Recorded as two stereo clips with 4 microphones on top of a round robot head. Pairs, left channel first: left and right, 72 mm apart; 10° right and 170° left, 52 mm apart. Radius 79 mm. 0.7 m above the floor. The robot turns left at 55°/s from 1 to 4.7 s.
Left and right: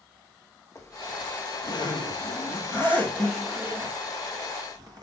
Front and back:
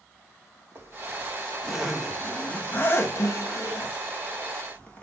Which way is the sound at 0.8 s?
130° left.